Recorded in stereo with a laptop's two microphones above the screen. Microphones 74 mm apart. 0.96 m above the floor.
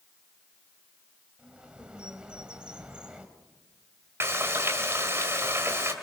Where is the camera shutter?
No camera shutter in this recording.